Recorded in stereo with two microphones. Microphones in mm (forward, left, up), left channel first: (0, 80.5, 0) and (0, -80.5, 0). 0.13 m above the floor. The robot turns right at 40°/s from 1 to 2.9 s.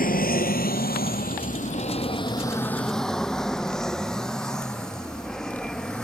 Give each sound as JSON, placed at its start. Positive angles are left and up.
{"t": 0.0, "sound": "an aircraft", "side_deg": 60}